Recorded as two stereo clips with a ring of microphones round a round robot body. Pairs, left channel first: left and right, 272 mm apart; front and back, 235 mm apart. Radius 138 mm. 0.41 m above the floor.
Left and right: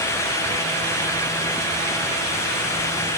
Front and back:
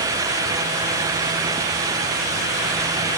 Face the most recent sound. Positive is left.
No sound to turn to.